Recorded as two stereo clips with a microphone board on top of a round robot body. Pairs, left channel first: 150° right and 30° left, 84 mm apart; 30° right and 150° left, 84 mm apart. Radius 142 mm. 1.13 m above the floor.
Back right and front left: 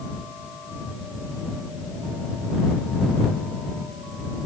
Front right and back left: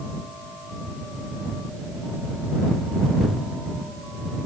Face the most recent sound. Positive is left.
No sound to turn to.